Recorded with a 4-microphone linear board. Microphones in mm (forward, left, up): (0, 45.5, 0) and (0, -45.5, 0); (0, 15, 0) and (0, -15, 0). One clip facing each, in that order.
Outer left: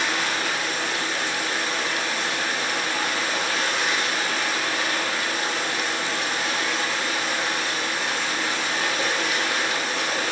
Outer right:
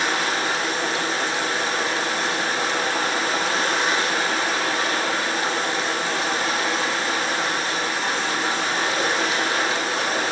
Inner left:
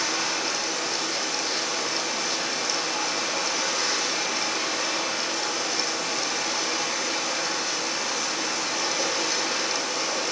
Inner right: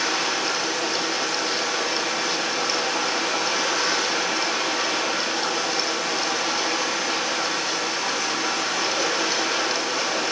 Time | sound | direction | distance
0.0 | running water | 45° right (ahead or behind) | 7.5 m